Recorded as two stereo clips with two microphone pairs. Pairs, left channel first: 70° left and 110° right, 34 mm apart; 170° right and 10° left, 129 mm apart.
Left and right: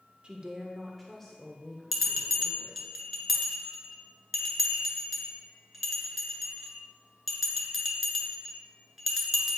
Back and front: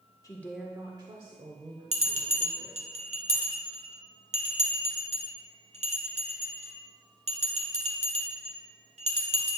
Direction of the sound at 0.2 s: 125° right.